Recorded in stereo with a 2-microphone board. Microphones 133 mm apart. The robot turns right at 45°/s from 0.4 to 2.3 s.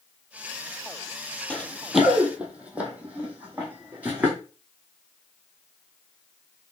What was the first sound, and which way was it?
Running footsteps, 10° left (ahead or behind).